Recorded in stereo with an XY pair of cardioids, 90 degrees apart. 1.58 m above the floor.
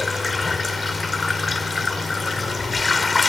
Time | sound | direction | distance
0.0 | running water | 30° left | ?